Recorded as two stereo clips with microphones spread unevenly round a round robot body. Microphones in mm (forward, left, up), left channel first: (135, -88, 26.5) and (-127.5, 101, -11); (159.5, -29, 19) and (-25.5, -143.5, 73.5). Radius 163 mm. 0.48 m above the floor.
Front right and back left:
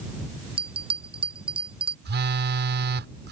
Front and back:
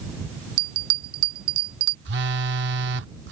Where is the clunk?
I don't hear a clunk.